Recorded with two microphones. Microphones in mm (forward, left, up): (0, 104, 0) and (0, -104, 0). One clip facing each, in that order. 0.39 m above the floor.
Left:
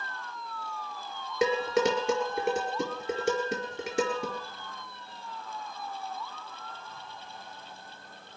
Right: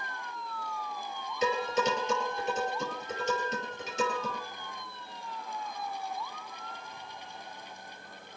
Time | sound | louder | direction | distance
1.4 | dishes clattering | left 4 dB | 85° left | 4.5 m